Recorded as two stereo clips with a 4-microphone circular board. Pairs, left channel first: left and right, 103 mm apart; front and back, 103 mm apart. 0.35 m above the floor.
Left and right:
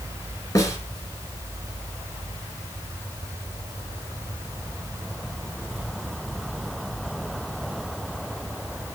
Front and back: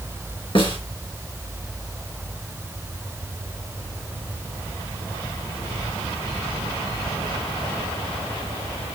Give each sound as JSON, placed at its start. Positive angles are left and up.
{"t": 0.6, "sound": "a snare drum", "azimuth_deg": 35, "distance_m": 3.5}